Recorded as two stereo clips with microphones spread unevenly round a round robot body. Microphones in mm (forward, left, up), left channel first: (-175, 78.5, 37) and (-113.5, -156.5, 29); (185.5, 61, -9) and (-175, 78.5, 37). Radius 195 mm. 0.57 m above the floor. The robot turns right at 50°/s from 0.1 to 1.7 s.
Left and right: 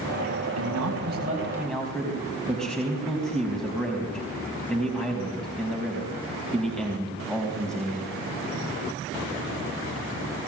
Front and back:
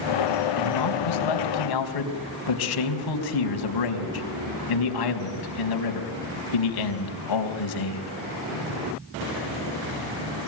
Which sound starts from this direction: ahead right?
A man speaking, at 0.6 s.